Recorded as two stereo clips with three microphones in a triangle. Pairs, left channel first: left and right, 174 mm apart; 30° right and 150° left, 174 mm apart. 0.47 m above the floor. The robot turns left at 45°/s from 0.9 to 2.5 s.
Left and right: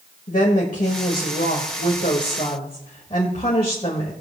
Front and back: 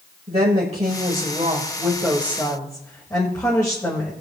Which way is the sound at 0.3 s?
110° left.